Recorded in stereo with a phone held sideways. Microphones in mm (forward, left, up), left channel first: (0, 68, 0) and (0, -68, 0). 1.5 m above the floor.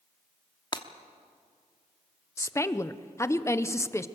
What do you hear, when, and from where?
0.7 s breaking glass: 35° left (ahead or behind), 1.1 m
2.4 s a woman speaking: 20° left (ahead or behind), 0.7 m